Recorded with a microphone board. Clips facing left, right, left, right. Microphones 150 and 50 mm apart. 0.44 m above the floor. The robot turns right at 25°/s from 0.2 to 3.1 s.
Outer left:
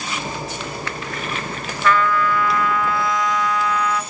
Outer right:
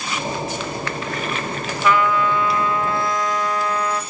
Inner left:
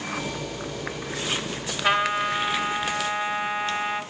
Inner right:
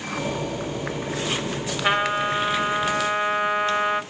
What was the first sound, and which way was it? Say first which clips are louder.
A trumpet: even, even; 165° right.